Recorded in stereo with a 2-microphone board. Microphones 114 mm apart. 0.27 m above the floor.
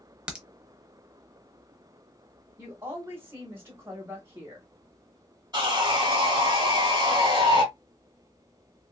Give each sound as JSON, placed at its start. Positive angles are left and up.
{"t": 0.3, "sound": "a crack", "side_deg": -10, "distance_m": 0.8}
{"t": 2.6, "sound": "a woman speaking", "side_deg": -20, "distance_m": 1.1}
{"t": 5.5, "sound": "sawing", "side_deg": -35, "distance_m": 1.6}